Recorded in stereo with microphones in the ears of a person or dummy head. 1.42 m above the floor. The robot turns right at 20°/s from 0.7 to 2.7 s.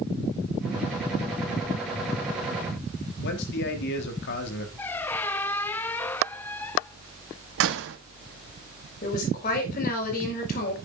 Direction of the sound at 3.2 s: 65° left (ahead or behind).